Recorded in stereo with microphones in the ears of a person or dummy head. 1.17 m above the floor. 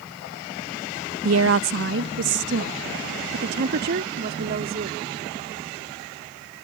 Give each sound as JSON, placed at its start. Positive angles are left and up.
{"t": 1.2, "sound": "a woman speaking", "side_deg": -70}